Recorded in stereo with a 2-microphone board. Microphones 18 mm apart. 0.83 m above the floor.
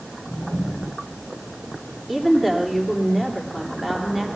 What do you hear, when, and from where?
2.1 s a woman speaking: 5° left (ahead or behind), 2.5 m